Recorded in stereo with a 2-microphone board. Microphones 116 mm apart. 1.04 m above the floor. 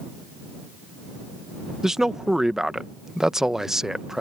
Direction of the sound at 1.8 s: 5° right (ahead or behind).